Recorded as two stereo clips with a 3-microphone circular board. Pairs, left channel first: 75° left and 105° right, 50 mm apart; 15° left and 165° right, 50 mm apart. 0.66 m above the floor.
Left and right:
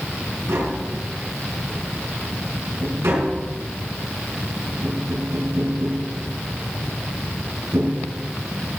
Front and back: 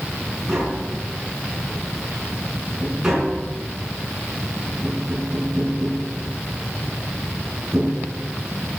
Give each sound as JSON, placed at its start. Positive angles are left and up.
{"t": 0.5, "sound": "tapping", "azimuth_deg": -85, "distance_m": 5.5}